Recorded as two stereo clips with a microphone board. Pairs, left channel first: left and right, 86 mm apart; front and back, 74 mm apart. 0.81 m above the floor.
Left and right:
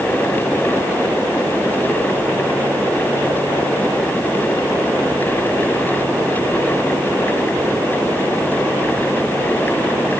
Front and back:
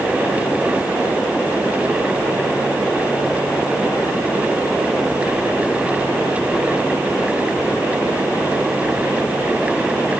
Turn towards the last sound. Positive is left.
No sound to turn to.